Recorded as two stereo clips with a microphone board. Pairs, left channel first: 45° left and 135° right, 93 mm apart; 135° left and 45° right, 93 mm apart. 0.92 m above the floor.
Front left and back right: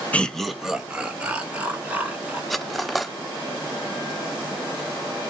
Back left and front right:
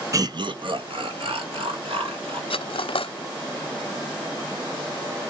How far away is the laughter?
About 0.7 m.